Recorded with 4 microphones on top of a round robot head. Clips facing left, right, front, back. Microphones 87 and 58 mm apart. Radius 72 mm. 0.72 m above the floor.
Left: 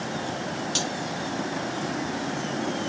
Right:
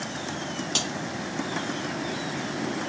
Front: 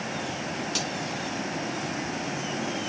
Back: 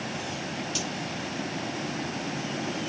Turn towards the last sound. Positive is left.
turn(degrees=-55)